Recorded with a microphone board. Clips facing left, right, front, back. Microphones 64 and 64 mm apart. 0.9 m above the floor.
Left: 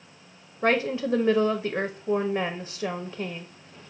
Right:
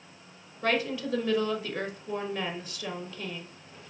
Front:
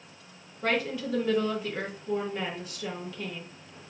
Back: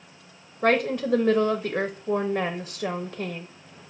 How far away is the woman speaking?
About 0.5 m.